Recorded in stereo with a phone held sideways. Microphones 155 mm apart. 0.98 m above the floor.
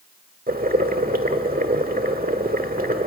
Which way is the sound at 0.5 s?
70° right (ahead or behind).